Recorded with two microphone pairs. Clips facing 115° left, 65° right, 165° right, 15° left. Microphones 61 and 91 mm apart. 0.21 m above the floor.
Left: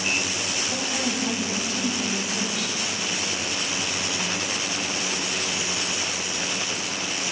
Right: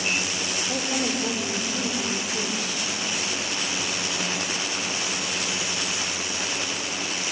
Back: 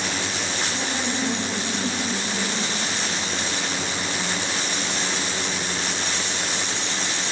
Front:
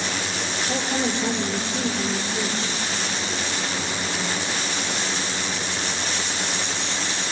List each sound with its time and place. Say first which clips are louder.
0.7 s a woman speaking: right 2 dB, front 3 dB; 10° right, 5.5 m